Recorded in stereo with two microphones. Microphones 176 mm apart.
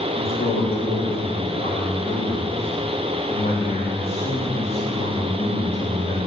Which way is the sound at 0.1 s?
30° left (ahead or behind).